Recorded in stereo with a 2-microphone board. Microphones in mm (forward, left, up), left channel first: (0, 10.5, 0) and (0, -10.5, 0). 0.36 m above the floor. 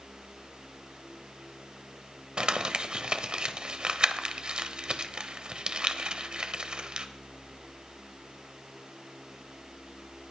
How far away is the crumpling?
About 1.1 m.